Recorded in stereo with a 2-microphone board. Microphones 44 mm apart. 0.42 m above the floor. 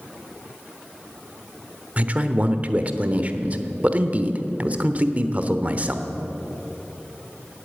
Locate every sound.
2.0 s a man speaking: 30° right (ahead or behind), 0.9 m